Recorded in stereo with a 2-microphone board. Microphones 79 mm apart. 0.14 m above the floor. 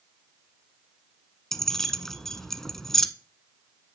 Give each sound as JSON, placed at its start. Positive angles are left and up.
{"t": 1.5, "sound": "keys jangling", "side_deg": 5, "distance_m": 0.9}